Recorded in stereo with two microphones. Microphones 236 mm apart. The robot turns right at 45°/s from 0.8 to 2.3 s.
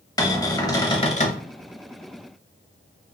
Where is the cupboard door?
15° left (ahead or behind), 0.7 m; by 1.4 s 35° left (ahead or behind), 0.7 m.